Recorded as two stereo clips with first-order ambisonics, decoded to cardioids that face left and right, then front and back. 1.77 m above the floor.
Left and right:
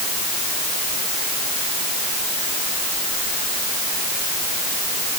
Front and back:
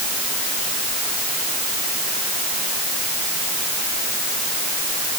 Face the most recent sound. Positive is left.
No sound to turn to.